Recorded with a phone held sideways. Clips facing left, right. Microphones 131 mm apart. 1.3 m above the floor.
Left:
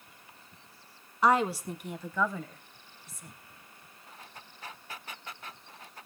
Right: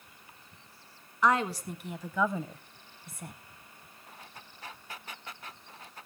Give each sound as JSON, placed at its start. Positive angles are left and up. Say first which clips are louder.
{"t": 1.2, "sound": "a woman speaking", "louder": "left 2 dB", "side_deg": 30, "distance_m": 1.2}